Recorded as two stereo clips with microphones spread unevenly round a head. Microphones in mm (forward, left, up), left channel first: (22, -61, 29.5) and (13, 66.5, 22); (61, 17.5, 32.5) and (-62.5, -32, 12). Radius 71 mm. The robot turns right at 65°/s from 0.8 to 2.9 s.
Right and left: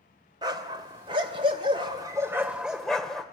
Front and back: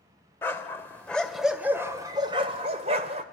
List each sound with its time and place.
0.4 s a dog barking: 60° left, 1.4 m; by 3.2 s 165° right, 1.4 m